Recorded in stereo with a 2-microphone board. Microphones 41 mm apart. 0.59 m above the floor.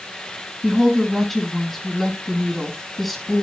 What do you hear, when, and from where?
0.6 s a woman speaking: 5° left (ahead or behind), 4 m